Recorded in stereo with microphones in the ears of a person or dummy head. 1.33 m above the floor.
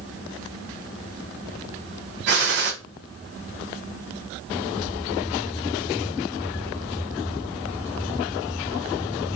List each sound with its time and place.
2.3 s a gunshot: 50° right (ahead or behind), 0.7 m